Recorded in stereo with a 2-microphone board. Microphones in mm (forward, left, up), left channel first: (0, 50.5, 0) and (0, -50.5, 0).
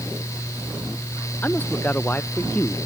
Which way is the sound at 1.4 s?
20° left (ahead or behind).